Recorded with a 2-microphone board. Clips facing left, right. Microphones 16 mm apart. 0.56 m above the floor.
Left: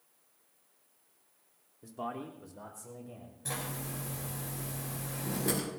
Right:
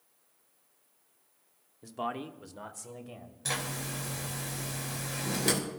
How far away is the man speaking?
About 1.0 m.